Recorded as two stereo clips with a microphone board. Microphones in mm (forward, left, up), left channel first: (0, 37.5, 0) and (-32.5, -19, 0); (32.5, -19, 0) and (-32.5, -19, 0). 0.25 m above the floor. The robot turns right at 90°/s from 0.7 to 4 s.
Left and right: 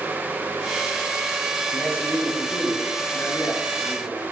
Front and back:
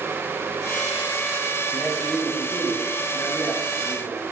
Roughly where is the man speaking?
Right.